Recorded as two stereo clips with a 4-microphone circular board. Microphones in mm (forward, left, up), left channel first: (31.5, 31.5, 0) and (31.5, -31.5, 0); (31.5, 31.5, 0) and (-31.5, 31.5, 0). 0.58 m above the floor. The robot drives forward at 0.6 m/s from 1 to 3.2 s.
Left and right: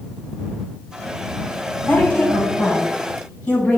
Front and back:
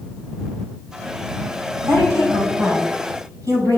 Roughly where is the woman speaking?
Behind left.